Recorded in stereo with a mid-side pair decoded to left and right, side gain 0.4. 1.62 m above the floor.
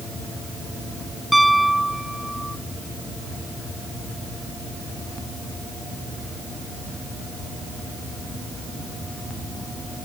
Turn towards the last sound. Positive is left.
turn(degrees=-10)